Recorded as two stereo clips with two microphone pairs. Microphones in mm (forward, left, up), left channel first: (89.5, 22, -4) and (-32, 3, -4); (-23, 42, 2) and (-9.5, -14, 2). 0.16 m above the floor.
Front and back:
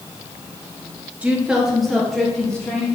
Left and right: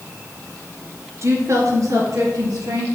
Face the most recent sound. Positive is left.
turn(degrees=-75)